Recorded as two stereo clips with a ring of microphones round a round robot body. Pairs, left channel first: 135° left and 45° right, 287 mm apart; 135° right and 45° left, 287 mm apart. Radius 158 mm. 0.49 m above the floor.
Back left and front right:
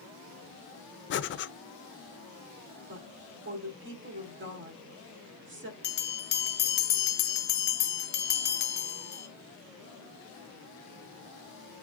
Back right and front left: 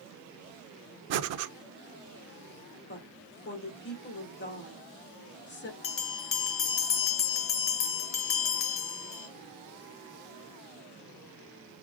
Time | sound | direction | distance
1.1 | breathing | 85° left | 0.5 m
2.9 | a woman speaking | 90° right | 1.8 m
5.8 | a bell | 175° right | 0.9 m